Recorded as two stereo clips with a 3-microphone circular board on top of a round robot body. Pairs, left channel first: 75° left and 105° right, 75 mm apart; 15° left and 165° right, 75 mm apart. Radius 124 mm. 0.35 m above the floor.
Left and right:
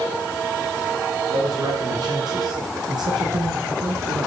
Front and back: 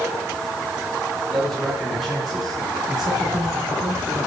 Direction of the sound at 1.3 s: 70° right.